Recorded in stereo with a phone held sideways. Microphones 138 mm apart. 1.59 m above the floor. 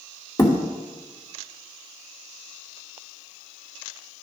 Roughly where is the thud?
Left.